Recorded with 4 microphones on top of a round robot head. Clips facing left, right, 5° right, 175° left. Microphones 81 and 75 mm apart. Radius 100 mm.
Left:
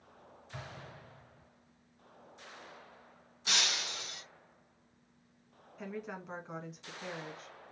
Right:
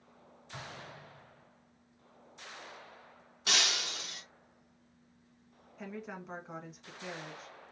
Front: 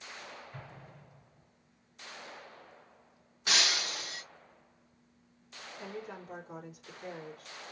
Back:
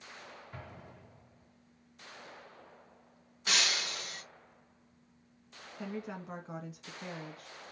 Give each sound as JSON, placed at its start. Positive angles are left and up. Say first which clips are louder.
{"t": 0.5, "sound": "an explosion", "louder": "right 2 dB, back 1 dB", "azimuth_deg": -160, "distance_m": 3.0}
{"t": 3.5, "sound": "breaking glass", "louder": "right 2 dB, front 1 dB", "azimuth_deg": -85, "distance_m": 0.7}
{"t": 5.8, "sound": "a woman speaking", "louder": "left 1 dB, back 3 dB", "azimuth_deg": 180, "distance_m": 1.5}